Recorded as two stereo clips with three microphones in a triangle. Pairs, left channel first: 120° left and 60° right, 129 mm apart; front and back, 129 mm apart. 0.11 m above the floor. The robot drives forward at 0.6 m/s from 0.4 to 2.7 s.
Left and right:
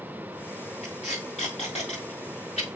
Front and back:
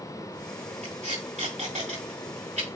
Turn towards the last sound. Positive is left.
turn(degrees=155)